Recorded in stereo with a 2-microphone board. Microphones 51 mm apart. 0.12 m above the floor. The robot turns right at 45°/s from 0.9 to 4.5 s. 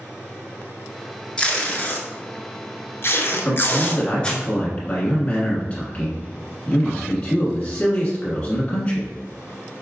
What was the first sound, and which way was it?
Tape being pulled, 15° left (ahead or behind).